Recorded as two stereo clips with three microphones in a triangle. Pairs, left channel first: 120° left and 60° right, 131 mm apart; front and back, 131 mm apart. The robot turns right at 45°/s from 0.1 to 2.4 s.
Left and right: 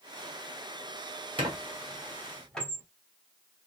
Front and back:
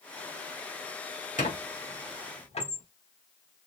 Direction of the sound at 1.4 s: 10° right.